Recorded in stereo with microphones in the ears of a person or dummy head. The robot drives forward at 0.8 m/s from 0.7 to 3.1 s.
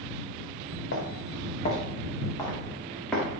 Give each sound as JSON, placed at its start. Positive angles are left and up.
{"t": 0.9, "sound": "footsteps", "side_deg": 55, "distance_m": 3.0}